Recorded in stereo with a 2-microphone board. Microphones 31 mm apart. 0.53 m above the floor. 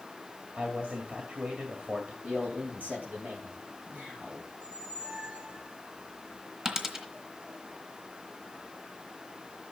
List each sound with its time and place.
0.6 s a man speaking: 55° right (ahead or behind), 2 m
2.2 s a man speaking: 65° right (ahead or behind), 3.5 m
4.5 s a squeak: 55° right (ahead or behind), 3 m
6.7 s a dropped coin: 20° right (ahead or behind), 1.7 m